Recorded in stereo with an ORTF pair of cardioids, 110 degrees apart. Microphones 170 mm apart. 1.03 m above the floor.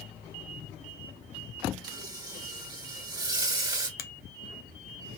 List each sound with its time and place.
1.8 s frying: 25° right, 1.7 m
4.0 s a finger snap: 60° left, 0.7 m